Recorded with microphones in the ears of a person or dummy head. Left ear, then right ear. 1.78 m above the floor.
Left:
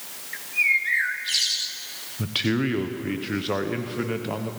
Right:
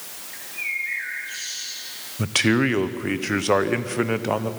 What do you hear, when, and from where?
0.3 s a bird: 50° left (ahead or behind), 1.2 m
2.2 s a man speaking: 35° right (ahead or behind), 0.9 m